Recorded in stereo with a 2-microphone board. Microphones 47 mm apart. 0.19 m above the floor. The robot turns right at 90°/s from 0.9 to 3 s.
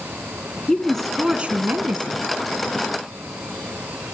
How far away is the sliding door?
No sliding door in this recording.